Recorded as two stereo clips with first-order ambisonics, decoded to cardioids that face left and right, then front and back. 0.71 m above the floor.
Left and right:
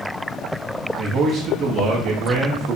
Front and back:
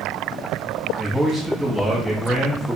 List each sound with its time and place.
1.0 s a man speaking: 100° right, 0.6 m